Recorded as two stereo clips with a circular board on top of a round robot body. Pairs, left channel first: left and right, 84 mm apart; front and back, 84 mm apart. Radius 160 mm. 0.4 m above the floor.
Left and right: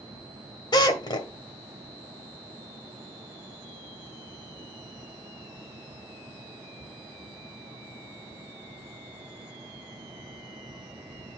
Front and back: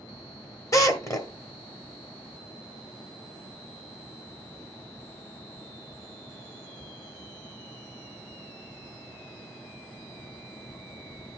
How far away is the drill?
About 1.4 m.